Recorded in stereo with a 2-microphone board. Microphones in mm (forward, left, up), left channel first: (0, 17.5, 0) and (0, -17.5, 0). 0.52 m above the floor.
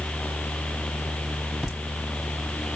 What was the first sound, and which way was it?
Laughter, 10° left (ahead or behind).